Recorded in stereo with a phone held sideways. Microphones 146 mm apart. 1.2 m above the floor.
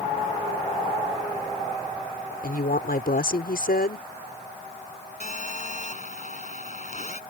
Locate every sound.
2.4 s a woman speaking: 85° left
5.2 s a phone buzzing: 50° left (ahead or behind)